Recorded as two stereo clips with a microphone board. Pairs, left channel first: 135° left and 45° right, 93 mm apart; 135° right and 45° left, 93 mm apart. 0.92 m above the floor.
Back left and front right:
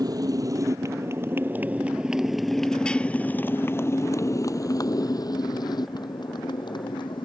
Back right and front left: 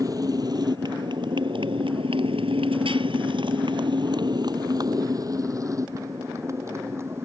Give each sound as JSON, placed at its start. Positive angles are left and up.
{"t": 0.0, "sound": "a motorcycle", "azimuth_deg": 0}